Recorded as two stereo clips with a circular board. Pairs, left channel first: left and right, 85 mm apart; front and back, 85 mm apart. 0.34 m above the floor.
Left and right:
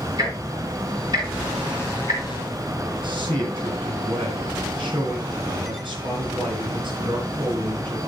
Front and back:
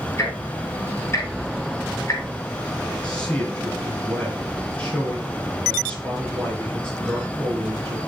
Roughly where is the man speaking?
Right.